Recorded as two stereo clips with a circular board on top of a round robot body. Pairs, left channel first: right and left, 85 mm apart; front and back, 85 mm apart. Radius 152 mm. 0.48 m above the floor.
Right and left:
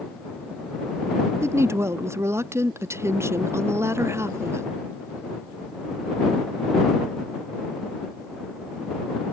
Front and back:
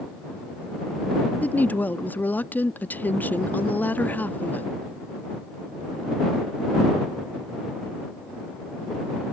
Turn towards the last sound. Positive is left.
turn(degrees=55)